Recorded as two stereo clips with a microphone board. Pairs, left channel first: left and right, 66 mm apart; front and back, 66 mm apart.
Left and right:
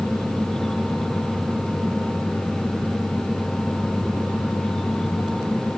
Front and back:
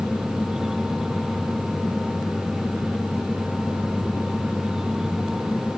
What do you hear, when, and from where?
Only background noise.